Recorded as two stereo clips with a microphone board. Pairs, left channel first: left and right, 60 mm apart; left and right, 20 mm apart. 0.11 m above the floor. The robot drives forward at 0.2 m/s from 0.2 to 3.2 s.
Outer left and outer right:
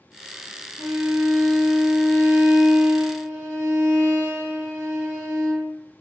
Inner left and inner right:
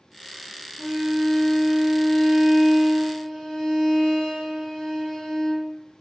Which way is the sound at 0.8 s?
25° left (ahead or behind).